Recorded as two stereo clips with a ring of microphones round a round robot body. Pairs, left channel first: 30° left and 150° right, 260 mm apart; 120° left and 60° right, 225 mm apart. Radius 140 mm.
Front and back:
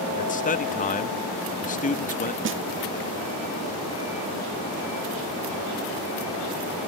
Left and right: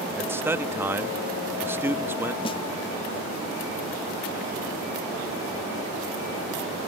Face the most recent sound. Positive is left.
turn(degrees=-175)